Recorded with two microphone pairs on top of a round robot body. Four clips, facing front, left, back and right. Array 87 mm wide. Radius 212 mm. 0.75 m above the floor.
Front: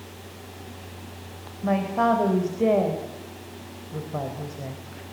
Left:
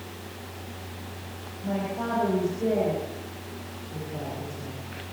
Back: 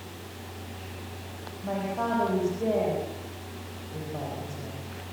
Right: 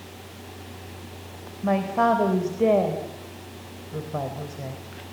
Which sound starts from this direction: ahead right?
A man speaking, at 1.6 s.